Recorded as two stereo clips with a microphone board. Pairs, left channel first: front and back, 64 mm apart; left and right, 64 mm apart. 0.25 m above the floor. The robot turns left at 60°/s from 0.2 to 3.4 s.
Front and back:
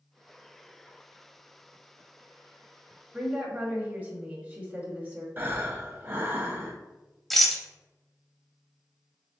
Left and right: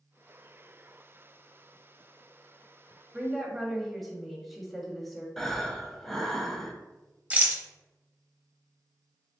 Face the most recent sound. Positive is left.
turn(degrees=-85)